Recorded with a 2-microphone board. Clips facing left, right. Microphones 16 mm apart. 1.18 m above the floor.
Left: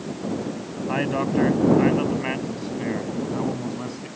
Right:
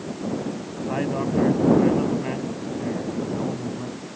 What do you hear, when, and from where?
0.9 s a man speaking: 35° left (ahead or behind); by 4.1 s 60° left (ahead or behind)